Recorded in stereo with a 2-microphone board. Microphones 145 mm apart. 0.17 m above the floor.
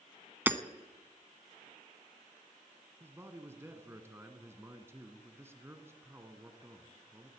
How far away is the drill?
I don't hear a drill.